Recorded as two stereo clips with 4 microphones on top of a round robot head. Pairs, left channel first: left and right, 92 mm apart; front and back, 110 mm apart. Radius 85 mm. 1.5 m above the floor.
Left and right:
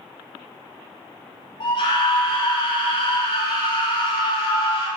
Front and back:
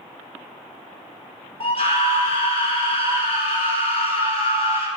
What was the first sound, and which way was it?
A scream, 30° left.